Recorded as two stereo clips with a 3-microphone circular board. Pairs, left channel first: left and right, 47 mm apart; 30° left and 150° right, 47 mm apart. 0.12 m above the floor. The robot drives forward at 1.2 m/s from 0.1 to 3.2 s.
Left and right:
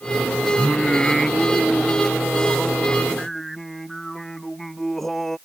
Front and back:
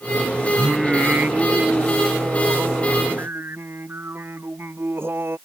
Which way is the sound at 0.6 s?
60° left.